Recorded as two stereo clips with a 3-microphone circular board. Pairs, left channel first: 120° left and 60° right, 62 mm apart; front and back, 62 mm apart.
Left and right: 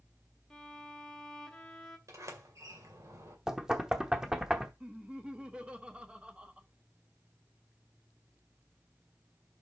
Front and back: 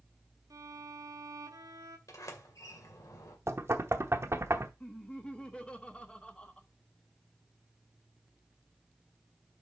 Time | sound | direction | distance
0.5 | a violin | 160° right | 1.0 m
2.1 | a sliding door | 30° right | 2 m
3.5 | knocking | 140° right | 0.9 m
4.8 | laughter | 30° right | 0.9 m